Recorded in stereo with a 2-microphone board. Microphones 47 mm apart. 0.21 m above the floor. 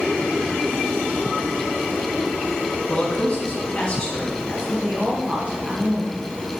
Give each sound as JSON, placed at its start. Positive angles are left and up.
{"t": 2.9, "sound": "a man speaking", "side_deg": 25, "distance_m": 1.9}
{"t": 4.5, "sound": "a woman speaking", "side_deg": -25, "distance_m": 1.2}